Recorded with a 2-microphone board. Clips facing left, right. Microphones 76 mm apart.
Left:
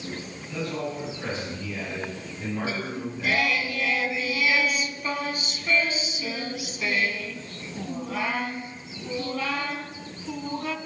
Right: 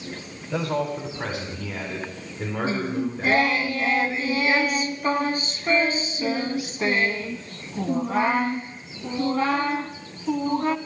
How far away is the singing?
About 0.8 m.